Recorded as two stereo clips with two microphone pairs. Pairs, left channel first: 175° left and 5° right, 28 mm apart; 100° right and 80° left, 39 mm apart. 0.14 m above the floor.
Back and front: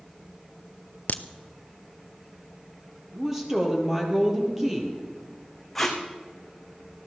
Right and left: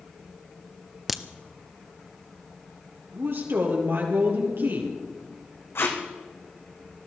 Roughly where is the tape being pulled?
Right.